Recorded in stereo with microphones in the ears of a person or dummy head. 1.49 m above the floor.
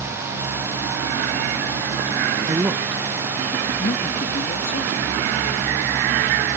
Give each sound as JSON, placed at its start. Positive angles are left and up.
{"t": 2.5, "sound": "a man speaking", "side_deg": -15}